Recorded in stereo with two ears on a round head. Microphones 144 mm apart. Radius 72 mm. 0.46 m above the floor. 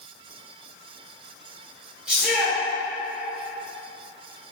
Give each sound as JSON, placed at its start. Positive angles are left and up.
{"t": 2.1, "sound": "a shout", "side_deg": -5, "distance_m": 1.9}